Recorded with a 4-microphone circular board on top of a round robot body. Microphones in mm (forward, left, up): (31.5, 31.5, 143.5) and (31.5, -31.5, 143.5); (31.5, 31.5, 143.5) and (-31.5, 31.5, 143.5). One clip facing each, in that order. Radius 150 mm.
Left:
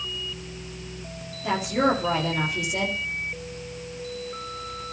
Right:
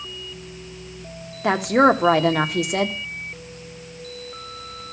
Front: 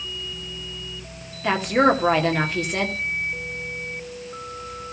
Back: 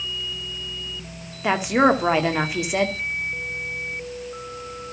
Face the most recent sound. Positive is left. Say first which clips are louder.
# right 7 dB, even
turn(degrees=-100)